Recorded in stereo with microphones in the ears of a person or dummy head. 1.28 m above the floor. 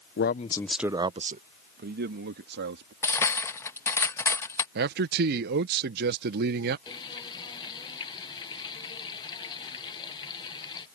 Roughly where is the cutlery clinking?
Centre.